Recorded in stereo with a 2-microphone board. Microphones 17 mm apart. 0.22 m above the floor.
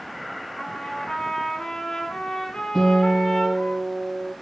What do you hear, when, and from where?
0.6 s a trumpet: 65° left (ahead or behind), 0.5 m
2.8 s a guitar: centre (ahead or behind), 1.0 m